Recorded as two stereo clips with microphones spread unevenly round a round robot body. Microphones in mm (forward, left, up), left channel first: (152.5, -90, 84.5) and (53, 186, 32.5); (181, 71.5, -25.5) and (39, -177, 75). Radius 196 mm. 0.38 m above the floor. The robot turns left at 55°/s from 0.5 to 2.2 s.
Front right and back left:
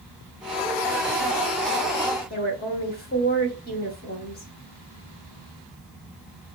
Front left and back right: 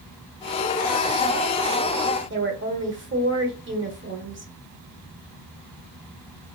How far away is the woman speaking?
About 0.8 m.